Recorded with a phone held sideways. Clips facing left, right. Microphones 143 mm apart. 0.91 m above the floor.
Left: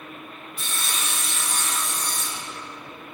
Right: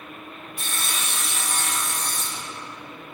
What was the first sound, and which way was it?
Sawing, 55° right (ahead or behind).